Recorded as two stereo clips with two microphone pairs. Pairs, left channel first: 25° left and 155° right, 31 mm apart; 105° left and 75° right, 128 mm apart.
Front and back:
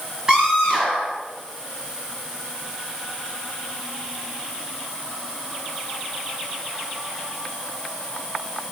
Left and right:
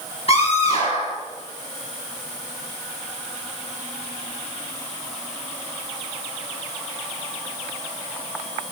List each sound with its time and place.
0.3 s a scream: 140° left, 5.5 m